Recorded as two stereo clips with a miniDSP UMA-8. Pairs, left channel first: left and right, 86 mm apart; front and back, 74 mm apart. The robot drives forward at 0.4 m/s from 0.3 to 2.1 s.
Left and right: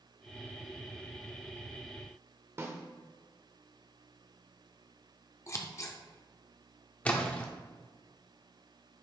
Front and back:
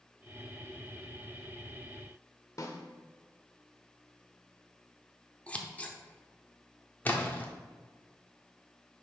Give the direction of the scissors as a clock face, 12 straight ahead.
10 o'clock.